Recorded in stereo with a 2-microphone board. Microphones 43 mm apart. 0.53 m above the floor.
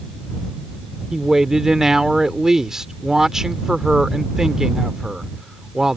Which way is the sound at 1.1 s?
15° right (ahead or behind).